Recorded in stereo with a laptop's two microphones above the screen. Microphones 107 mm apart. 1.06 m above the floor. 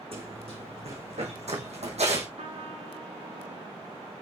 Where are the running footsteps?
60° right (ahead or behind), 5 m; by 2.3 s 75° right (ahead or behind), 3.5 m.